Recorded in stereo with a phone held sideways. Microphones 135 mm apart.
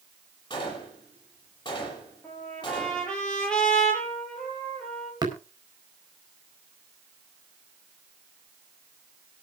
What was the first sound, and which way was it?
A gunshot, 30° left (ahead or behind).